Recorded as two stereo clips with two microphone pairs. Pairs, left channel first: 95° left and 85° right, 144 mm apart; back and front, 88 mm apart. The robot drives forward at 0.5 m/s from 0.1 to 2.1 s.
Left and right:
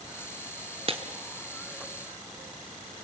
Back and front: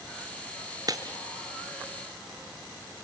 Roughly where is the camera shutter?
No camera shutter in this recording.